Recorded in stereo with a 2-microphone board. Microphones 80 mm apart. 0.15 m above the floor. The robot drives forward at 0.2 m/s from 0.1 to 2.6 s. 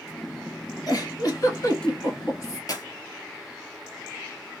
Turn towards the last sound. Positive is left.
turn(degrees=50)  # may be behind; listen again after turning